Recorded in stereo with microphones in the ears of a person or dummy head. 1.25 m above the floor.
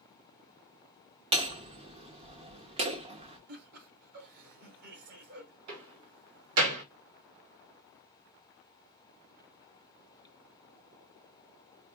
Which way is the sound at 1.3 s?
30° right (ahead or behind).